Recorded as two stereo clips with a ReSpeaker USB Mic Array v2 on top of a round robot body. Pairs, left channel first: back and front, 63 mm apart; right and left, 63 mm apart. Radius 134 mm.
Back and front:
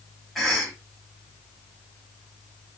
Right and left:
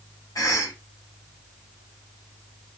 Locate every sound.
0.3 s a cough: 90° right, 1.4 m